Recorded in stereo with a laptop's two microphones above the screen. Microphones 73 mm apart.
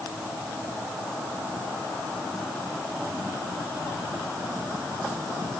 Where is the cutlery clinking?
I don't hear cutlery clinking.